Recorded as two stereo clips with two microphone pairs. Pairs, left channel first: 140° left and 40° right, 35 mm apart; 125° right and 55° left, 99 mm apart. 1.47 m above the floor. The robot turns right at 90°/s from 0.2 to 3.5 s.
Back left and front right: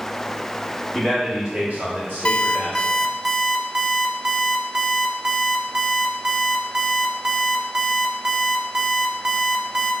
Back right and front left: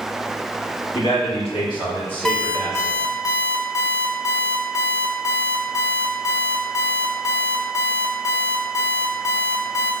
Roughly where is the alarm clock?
Behind left.